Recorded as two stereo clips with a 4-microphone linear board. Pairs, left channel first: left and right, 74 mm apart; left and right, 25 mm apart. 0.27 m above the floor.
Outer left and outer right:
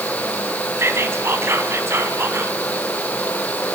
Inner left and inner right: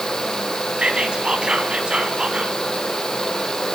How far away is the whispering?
About 2.5 m.